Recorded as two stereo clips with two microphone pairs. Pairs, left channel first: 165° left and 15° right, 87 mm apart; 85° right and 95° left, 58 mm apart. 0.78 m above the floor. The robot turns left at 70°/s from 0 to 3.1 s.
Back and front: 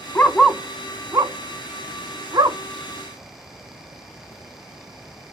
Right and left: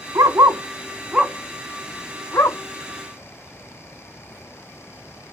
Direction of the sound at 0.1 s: 100° left.